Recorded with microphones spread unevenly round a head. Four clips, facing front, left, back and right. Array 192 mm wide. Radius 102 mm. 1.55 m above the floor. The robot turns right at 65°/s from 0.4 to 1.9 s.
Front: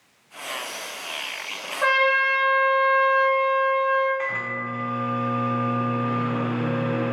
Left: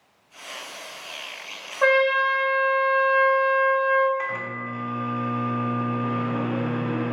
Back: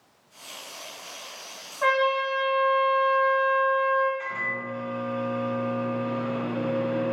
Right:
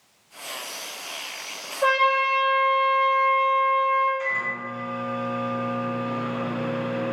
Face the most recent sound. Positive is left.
turn(degrees=35)